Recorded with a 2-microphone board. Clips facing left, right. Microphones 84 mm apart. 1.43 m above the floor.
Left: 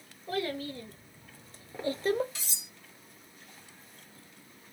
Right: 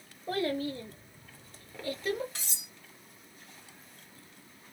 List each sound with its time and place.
0.3 s a child speaking: 45° right (ahead or behind), 0.9 m; by 2.2 s 45° left (ahead or behind), 0.7 m
2.4 s cutlery clinking: 55° right (ahead or behind), 1.5 m